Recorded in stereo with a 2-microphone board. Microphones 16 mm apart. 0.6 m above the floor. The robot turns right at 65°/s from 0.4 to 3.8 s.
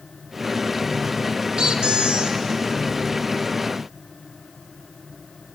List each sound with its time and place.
1.6 s a squeak: 125° right, 1.1 m; by 2.4 s 70° right, 1.1 m